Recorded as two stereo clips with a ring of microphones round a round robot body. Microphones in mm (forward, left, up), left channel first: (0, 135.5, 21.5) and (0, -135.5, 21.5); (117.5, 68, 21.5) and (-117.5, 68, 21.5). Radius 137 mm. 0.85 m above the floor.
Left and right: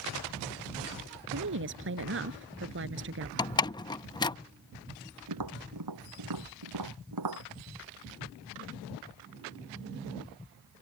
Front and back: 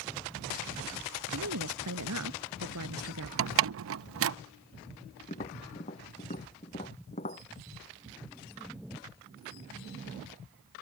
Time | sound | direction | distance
1.3 | a woman speaking | 140° right | ?
3.4 | a door slam | 165° left | ?
5.3 | tapping | 70° right | ?